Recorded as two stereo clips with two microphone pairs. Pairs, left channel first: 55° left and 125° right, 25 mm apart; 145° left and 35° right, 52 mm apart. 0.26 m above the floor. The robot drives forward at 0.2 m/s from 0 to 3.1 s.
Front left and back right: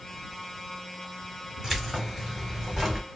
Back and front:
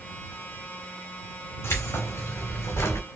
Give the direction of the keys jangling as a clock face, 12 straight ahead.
7 o'clock.